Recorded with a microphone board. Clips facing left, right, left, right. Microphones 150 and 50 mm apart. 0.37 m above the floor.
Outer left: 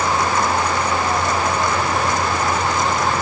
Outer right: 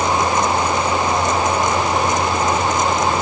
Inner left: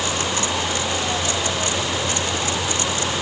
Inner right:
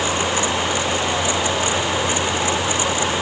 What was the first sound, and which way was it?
Only background noise.